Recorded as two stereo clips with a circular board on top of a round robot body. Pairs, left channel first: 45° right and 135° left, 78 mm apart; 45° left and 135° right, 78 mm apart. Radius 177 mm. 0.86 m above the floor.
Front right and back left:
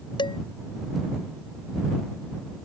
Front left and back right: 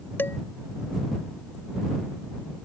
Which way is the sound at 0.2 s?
20° right.